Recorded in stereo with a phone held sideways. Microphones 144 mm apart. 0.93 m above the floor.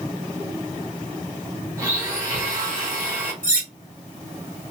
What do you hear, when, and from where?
1.8 s a blender: 20° right (ahead or behind), 1.2 m
3.4 s cutlery clinking: 70° right (ahead or behind), 1.3 m